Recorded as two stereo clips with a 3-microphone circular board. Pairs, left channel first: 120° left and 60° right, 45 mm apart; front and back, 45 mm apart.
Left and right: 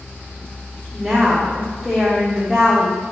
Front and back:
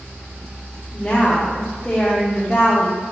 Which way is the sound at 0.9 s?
20° left.